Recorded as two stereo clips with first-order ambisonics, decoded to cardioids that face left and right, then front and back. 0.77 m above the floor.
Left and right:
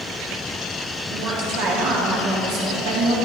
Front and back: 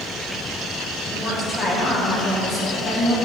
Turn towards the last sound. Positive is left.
turn(degrees=-70)